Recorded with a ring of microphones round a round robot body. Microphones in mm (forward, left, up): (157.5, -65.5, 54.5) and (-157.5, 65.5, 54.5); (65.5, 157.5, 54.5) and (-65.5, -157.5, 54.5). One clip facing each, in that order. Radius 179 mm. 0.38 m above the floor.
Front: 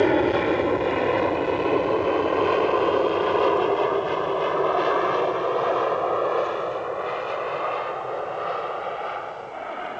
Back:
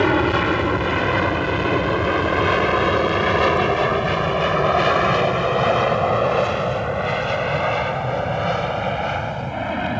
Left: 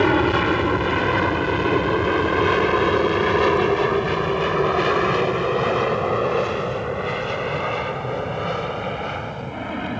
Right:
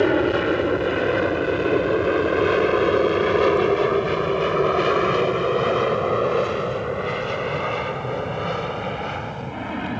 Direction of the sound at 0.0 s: 120° left.